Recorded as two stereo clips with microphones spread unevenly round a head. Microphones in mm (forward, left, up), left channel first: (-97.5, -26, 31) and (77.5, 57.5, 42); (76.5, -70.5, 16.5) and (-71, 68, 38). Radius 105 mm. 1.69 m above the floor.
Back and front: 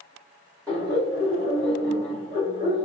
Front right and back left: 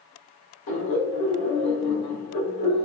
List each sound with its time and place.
0.7 s laughter: 50° right, 2 m